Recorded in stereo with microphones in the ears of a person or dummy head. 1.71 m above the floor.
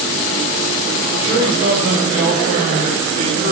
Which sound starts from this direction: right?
A man speaking, at 1.2 s.